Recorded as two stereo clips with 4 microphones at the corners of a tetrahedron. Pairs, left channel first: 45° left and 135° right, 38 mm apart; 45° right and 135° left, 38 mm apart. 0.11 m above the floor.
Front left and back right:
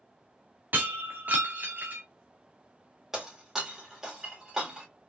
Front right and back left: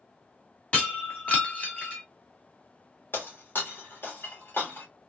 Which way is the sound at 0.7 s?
100° right.